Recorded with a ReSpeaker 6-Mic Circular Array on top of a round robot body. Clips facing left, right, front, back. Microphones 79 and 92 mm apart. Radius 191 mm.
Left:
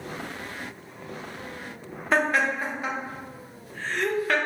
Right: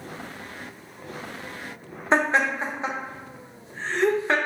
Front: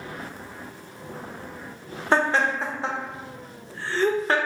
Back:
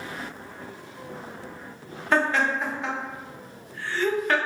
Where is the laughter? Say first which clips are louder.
Right 2 dB, front 1 dB; 40° right, 0.9 m.